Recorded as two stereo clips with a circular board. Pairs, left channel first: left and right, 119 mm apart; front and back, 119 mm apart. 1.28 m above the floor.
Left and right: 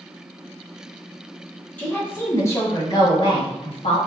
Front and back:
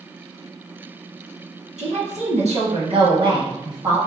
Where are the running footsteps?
No running footsteps in this recording.